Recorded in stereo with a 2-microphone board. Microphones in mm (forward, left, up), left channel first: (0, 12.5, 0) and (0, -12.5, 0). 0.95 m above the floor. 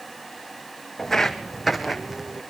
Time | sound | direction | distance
1.0 | footsteps | 15° left (ahead or behind) | 2.0 m